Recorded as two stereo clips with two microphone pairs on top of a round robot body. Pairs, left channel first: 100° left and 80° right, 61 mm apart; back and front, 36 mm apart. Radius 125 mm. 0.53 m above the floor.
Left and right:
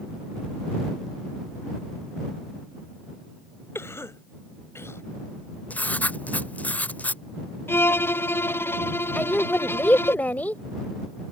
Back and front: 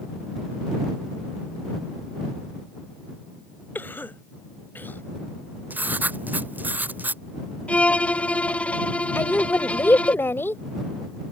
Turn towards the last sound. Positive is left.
turn(degrees=165)